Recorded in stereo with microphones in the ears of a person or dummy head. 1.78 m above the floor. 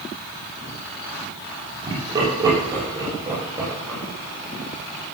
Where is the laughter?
20° right (ahead or behind), 7.5 m; by 5.1 s 15° right (ahead or behind), 12 m.